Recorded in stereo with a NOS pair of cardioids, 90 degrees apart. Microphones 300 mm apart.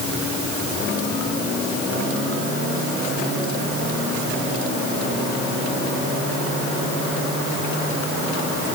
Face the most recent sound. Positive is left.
No sound to turn to.